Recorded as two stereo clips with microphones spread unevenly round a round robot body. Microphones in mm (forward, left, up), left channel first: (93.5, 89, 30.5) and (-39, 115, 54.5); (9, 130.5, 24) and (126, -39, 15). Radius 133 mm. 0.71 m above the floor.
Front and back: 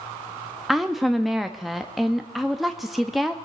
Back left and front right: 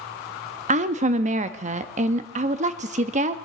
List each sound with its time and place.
0.7 s a woman speaking: 90° right, 0.5 m